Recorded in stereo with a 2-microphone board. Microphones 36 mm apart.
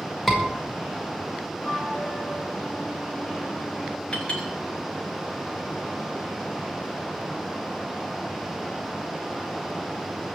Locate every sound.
0.3 s a scream: 10° left (ahead or behind), 5 m
1.6 s a flute: 45° left (ahead or behind), 5.5 m
4.1 s a clink: 35° left (ahead or behind), 6.5 m